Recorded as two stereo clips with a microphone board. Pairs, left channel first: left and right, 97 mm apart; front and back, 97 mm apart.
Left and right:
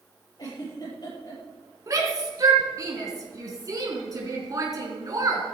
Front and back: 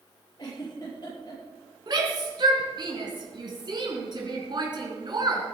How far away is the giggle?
About 7 m.